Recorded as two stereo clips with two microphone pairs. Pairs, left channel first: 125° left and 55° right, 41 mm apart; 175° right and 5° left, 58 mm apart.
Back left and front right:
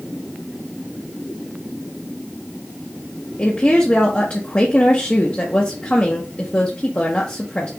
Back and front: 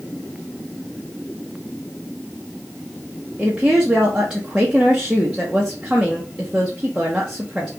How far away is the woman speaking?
About 1.1 m.